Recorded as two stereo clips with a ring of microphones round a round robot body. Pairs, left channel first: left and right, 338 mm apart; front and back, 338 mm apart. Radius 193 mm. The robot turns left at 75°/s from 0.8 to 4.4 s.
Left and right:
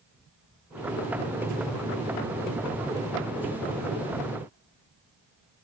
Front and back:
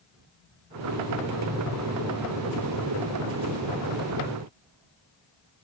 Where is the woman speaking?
No woman speaking in this recording.